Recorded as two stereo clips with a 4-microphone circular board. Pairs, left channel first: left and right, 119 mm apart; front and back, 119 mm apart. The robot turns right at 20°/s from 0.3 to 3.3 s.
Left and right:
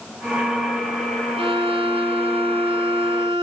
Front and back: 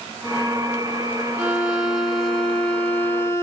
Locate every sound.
1.4 s a violin: 105° right, 1.3 m; by 3.4 s 65° right, 1.3 m